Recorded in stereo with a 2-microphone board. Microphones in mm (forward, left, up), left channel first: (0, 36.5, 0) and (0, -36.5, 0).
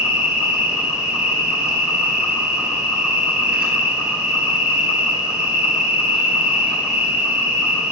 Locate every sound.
0.0 s an insect: 15° right (ahead or behind), 1.3 m